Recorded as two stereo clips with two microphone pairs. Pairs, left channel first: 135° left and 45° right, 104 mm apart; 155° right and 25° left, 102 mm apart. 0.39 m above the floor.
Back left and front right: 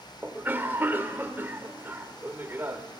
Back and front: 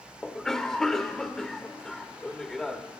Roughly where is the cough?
Right.